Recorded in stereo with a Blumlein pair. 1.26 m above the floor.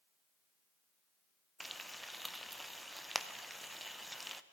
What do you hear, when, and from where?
1.6 s frying: straight ahead, 0.5 m